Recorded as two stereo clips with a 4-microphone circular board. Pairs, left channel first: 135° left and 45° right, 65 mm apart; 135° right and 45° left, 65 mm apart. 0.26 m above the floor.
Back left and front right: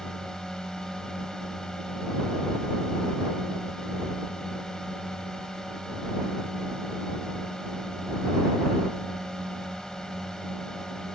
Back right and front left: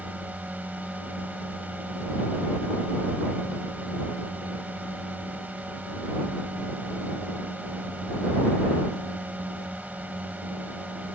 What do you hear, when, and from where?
0.0 s a drone: 70° left